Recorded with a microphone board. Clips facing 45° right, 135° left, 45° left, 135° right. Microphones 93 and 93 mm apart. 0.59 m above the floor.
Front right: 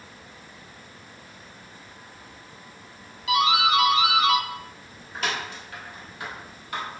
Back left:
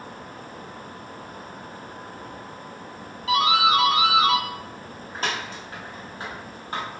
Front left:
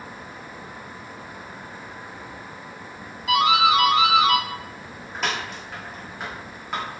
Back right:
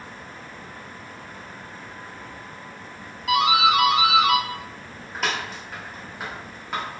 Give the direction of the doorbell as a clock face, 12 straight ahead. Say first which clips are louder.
Back left 1 dB, front left 1 dB; 7 o'clock.